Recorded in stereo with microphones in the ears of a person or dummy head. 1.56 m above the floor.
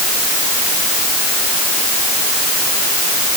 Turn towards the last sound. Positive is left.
No sound to turn to.